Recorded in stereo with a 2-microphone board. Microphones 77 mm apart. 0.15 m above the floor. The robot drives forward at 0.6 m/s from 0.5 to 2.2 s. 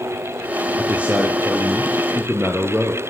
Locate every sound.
0.8 s a man speaking: 20° right (ahead or behind), 4 m; by 3.0 s 15° right (ahead or behind), 4.5 m